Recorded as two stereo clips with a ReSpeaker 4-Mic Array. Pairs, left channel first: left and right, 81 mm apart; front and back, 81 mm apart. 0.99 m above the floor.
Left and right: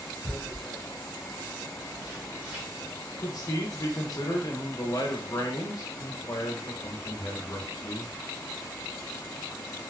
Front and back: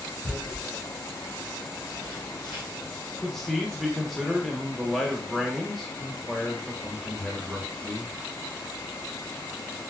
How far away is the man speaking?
About 0.9 m.